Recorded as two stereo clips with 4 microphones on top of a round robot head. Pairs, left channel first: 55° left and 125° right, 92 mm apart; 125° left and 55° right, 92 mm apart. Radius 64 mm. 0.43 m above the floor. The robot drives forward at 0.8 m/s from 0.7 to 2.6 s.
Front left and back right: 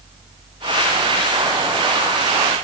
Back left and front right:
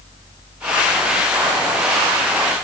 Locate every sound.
Only background noise.